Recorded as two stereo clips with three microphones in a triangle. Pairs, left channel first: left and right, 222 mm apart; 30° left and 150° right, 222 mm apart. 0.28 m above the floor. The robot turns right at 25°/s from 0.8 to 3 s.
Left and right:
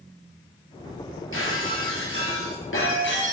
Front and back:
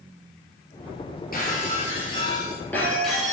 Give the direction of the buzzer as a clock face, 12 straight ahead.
I don't hear a buzzer.